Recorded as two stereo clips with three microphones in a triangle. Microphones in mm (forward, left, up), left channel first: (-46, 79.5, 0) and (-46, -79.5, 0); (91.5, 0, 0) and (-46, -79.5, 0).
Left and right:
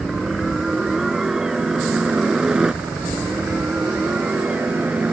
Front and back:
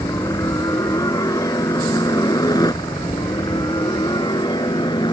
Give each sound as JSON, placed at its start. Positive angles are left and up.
{"t": 0.0, "sound": "a helicopter", "azimuth_deg": -5}